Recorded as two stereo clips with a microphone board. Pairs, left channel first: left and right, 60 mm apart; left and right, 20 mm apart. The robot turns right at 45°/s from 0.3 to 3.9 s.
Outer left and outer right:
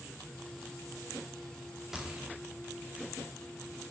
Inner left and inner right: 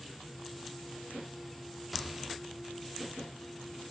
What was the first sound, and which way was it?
A gunshot, 5° right (ahead or behind).